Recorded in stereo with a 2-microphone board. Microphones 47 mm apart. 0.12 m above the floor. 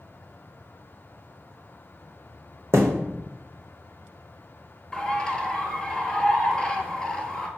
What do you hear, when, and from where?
2.7 s a thud: 65° right (ahead or behind), 0.8 m
4.9 s a bird: 15° left (ahead or behind), 0.7 m